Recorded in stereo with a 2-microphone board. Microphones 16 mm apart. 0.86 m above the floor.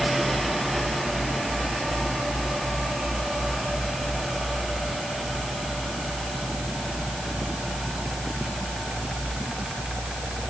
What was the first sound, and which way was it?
Only background noise.